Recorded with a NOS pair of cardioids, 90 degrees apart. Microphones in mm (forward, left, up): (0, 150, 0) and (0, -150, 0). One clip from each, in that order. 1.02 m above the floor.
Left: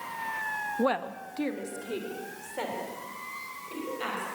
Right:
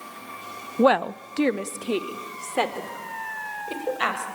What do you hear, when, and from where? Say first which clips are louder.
0.8 s a woman speaking: right 12 dB; 40° right, 0.7 m; by 4.2 s 75° right, 4.5 m